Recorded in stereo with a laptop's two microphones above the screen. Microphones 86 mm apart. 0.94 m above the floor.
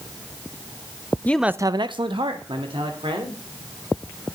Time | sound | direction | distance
1.2 | a man speaking | 20° left (ahead or behind) | 0.5 m